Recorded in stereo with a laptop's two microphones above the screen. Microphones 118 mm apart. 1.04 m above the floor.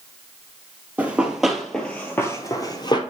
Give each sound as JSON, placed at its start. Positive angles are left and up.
{"t": 1.0, "sound": "running footsteps", "side_deg": -15, "distance_m": 1.5}